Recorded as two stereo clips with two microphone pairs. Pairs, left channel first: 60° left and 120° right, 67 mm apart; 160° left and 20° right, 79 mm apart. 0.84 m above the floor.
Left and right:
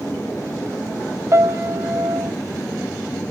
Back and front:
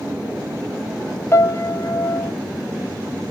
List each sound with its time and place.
1.3 s a piano: 150° right, 0.8 m